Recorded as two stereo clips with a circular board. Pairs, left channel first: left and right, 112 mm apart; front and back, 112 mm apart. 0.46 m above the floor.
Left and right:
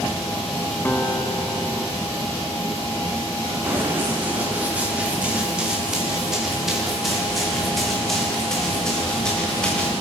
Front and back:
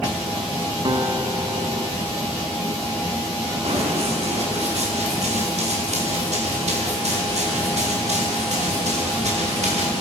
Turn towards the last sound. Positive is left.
turn(degrees=170)